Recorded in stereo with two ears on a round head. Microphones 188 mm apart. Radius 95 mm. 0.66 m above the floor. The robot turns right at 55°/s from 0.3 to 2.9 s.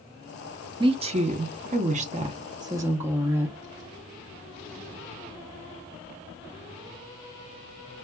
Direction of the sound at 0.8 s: 135° right.